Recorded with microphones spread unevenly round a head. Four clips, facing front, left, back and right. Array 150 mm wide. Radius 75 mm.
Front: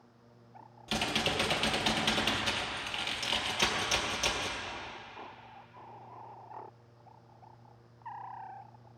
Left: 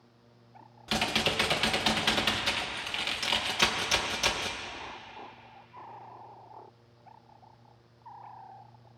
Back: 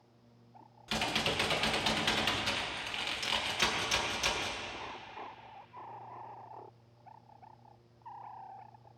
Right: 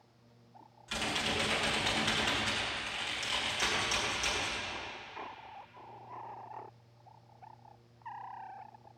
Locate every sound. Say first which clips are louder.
0.9 s typing on a keyboard: left 5 dB, front 1 dB; 55° left, 2 m